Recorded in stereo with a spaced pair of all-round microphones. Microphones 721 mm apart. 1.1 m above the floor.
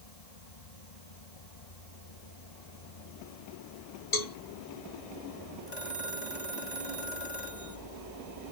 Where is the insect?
60° left (ahead or behind).